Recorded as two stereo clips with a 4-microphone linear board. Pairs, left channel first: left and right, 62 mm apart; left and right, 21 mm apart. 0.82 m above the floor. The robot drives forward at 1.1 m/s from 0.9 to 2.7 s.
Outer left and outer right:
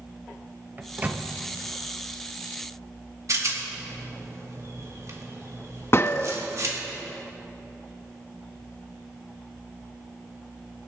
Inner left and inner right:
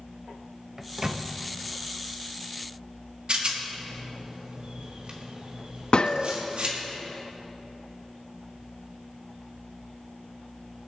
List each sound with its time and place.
0.8 s a microwave: 25° right (ahead or behind), 0.6 m; by 1.2 s 20° right (ahead or behind), 0.7 m
3.3 s a rattle: 55° right (ahead or behind), 1.7 m
5.9 s a gunshot: 45° left (ahead or behind), 0.5 m